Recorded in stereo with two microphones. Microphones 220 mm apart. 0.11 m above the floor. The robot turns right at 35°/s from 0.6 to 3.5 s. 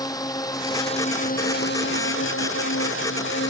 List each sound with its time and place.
0.0 s a drone: 15° left; by 3.5 s 120° left